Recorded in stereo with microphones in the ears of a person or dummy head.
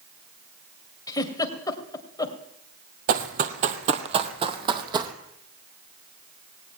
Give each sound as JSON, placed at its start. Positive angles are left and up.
{"t": 1.1, "sound": "a giggle", "side_deg": 20, "distance_m": 2.0}
{"t": 3.1, "sound": "running footsteps", "side_deg": -50, "distance_m": 1.7}